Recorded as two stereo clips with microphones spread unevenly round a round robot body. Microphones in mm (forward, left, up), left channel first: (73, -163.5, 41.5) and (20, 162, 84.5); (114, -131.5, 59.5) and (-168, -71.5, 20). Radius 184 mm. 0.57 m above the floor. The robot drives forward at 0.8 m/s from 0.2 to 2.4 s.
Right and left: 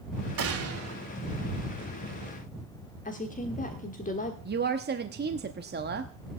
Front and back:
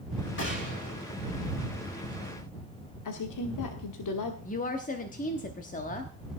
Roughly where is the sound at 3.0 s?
Ahead.